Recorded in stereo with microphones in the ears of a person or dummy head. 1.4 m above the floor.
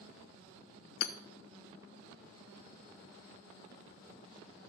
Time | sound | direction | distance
1.0 | hammering | 60° left (ahead or behind) | 0.7 m